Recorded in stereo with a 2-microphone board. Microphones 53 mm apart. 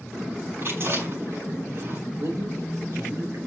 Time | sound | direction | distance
0.6 | chewing | 50° right (ahead or behind) | 5.5 m
2.2 | a man speaking | 60° right (ahead or behind) | 3.5 m